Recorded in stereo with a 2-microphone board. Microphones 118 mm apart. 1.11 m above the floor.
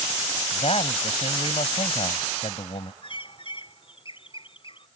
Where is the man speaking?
50° left (ahead or behind).